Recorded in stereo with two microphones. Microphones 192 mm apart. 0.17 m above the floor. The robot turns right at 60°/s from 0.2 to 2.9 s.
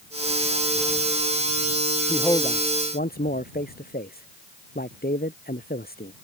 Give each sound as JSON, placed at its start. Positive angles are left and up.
{"t": 2.1, "sound": "a man speaking", "side_deg": 5}